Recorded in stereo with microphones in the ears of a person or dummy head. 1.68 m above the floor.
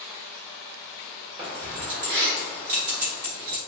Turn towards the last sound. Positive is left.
turn(degrees=-45)  # may be behind; listen again after turning